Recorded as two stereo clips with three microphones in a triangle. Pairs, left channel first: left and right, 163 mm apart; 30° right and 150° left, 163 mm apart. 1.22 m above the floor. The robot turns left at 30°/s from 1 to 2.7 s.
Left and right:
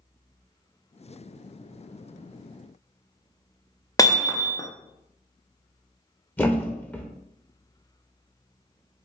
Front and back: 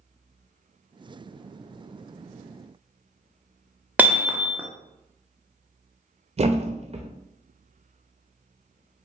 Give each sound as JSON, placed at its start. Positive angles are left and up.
{"t": 4.0, "sound": "hammering", "azimuth_deg": 90, "distance_m": 0.6}
{"t": 6.4, "sound": "a thud", "azimuth_deg": 160, "distance_m": 0.6}